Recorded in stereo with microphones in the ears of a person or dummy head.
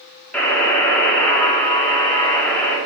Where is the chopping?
No chopping in this recording.